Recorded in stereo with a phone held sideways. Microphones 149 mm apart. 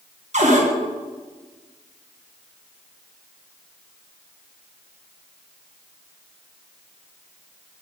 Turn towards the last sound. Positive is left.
turn(degrees=-50)  # may be behind; listen again after turning